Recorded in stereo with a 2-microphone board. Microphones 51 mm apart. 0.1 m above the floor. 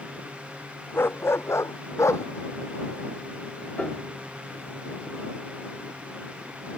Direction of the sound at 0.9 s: 50° left (ahead or behind).